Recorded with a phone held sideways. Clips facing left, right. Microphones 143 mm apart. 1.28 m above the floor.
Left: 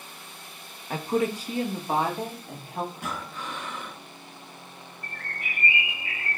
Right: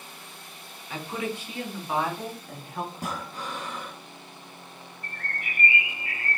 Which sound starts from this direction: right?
Breathing, at 2.9 s.